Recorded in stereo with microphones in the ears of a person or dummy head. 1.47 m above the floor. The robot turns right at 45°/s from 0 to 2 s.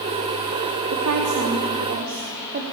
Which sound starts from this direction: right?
A woman speaking, at 0.9 s.